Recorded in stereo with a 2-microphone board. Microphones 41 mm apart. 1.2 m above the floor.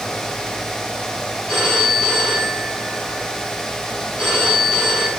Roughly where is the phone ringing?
Left.